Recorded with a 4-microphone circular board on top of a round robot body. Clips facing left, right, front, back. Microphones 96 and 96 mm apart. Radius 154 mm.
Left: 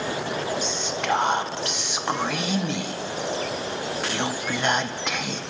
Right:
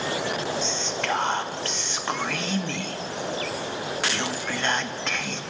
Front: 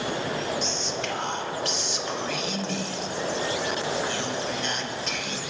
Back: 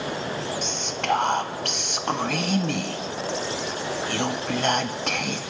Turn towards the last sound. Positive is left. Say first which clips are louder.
# left 1 dB, back 2 dB
turn(degrees=165)